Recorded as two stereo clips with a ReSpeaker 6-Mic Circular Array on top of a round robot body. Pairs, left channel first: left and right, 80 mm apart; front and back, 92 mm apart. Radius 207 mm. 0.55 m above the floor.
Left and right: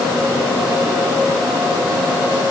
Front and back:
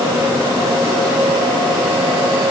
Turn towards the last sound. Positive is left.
No sound to turn to.